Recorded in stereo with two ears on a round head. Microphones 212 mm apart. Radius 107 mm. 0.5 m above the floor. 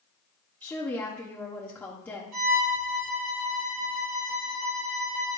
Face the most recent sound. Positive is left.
turn(degrees=-70)  # may be behind; listen again after turning